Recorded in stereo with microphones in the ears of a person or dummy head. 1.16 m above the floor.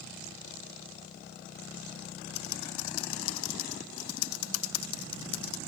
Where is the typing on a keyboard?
80° left.